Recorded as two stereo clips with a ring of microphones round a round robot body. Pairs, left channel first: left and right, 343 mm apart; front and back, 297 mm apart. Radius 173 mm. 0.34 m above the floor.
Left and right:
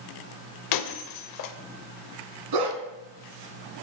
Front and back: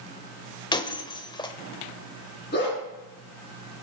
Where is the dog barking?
65° right, 1.3 m.